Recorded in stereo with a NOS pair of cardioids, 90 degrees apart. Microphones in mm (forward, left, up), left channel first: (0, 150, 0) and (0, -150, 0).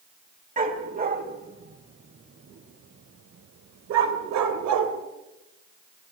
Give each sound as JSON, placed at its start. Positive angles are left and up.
{"t": 0.6, "sound": "a dog barking", "azimuth_deg": -30, "distance_m": 3.5}